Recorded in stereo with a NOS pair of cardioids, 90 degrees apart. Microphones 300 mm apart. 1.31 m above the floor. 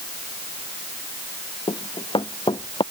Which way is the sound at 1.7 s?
15° left.